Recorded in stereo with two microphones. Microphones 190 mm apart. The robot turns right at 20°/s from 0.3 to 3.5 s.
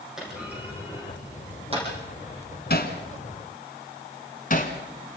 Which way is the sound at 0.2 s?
5° right (ahead or behind).